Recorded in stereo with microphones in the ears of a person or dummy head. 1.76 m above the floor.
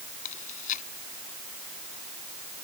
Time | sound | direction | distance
0.2 | chewing | 40° left (ahead or behind) | ?